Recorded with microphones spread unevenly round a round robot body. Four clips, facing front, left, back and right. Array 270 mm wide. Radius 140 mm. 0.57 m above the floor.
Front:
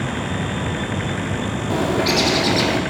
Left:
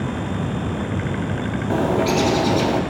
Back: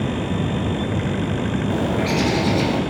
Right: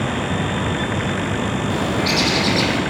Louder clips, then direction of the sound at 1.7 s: Left 5 dB, front 4 dB; 45° left.